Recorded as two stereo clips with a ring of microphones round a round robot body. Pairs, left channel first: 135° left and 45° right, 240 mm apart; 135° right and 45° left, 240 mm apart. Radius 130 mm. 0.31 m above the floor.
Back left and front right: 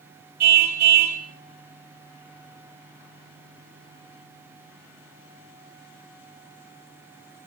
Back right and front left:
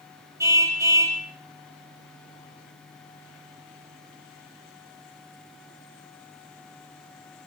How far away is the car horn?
About 5.5 m.